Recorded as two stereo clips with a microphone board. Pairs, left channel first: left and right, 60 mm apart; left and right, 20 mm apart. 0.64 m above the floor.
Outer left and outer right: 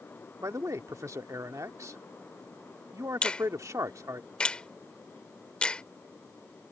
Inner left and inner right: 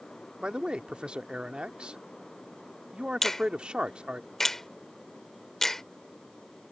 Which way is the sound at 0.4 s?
60° right (ahead or behind).